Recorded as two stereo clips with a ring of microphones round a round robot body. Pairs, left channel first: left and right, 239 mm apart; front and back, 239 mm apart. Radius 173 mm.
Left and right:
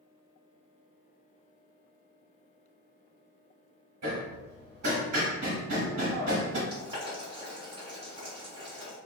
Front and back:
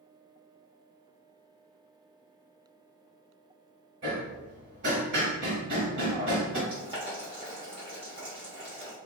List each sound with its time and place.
4.0 s hammering: 130° right, 0.8 m
6.7 s boiling: 135° right, 1.3 m